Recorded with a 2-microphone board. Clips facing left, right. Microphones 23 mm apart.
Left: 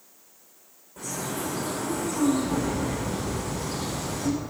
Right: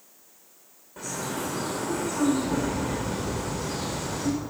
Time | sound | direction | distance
1.0 | a bird | 20° right (ahead or behind) | 4 m